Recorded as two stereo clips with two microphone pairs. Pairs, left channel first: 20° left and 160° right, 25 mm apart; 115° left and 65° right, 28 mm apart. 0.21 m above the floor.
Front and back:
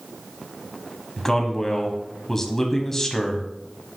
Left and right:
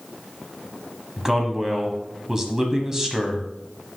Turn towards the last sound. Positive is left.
turn(degrees=-25)